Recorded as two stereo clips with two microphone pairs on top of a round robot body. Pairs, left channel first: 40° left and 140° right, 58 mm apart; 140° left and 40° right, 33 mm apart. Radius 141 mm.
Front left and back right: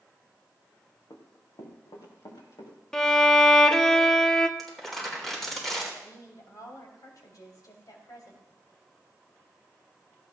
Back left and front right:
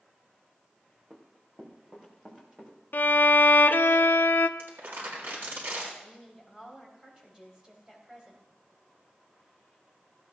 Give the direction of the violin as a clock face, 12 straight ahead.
8 o'clock.